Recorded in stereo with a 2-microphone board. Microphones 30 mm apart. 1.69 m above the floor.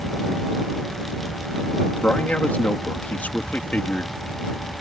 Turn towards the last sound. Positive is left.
turn(degrees=60)  # may be behind; listen again after turning